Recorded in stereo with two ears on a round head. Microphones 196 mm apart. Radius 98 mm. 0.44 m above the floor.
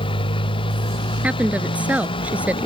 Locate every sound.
0.0 s a motorcycle: 20° left (ahead or behind)
1.2 s a woman speaking: 5° right (ahead or behind)